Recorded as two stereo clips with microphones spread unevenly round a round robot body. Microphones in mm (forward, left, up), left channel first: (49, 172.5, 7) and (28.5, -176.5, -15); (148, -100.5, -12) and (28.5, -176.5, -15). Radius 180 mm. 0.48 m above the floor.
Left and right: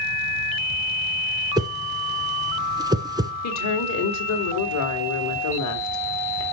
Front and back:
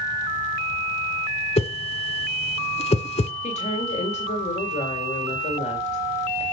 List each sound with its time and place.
1.6 s a whoosh: 15° right, 1.0 m
3.4 s a woman speaking: 60° left, 1.9 m